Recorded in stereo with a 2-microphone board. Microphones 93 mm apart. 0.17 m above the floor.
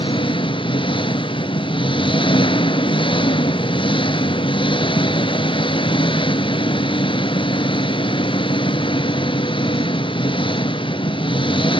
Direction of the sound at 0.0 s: 65° left (ahead or behind).